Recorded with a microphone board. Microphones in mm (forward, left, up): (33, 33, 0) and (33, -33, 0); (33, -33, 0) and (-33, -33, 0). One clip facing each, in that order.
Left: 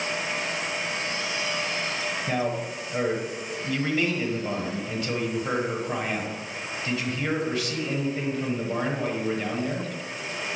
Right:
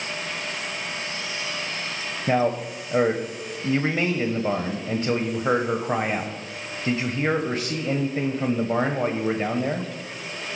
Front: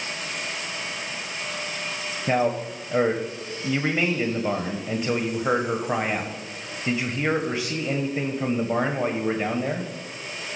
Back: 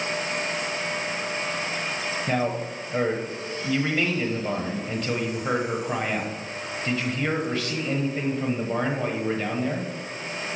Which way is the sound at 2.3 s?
60° right.